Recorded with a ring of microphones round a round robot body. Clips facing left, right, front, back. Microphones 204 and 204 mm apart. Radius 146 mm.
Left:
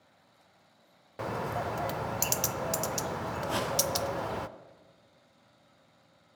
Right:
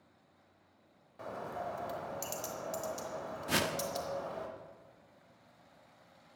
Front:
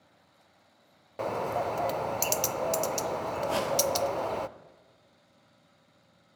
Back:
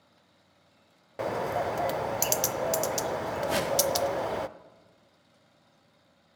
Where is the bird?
95° left, 0.5 m.